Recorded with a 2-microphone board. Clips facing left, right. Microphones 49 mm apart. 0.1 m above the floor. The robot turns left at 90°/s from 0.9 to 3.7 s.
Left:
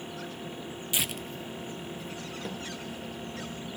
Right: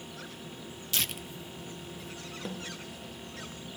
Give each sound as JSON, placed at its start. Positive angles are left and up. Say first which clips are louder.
{"t": 0.9, "sound": "tearing paper", "louder": "left 1 dB", "side_deg": 20, "distance_m": 0.6}
{"t": 2.5, "sound": "a snare drum", "louder": "even", "side_deg": -5, "distance_m": 4.5}